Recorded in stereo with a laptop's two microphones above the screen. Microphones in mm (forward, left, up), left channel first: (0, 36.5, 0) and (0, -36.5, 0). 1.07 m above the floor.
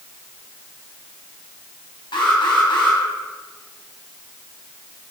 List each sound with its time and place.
2.1 s an alarm: 85° left, 6.5 m